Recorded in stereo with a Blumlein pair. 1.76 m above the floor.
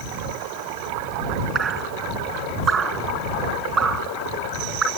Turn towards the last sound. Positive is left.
turn(degrees=-20)